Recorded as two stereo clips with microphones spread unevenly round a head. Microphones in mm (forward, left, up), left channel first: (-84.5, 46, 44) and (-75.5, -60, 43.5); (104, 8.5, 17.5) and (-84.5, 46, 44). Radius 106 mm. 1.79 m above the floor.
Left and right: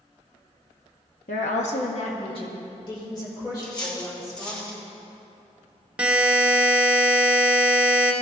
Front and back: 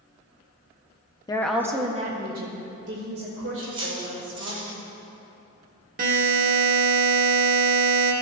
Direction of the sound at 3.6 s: 125° left.